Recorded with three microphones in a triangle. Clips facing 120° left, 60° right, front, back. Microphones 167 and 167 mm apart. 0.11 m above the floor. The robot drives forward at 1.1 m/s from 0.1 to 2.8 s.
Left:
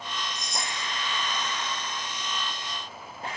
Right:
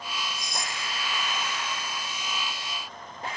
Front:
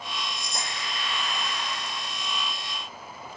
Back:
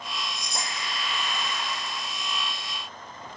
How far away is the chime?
About 7.5 m.